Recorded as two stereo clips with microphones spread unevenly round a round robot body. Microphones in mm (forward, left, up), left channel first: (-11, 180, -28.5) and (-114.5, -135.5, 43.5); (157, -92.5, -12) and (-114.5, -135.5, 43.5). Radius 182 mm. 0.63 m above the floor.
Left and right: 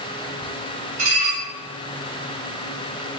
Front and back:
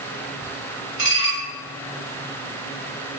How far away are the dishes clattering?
About 1.6 m.